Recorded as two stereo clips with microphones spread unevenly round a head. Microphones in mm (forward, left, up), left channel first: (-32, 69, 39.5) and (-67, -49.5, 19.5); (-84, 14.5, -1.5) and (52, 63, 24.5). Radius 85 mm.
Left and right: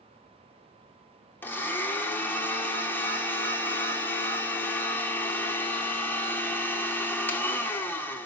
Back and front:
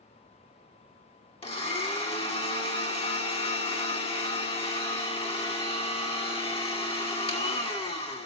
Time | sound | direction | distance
1.4 | a blender | 150° left | 2.5 m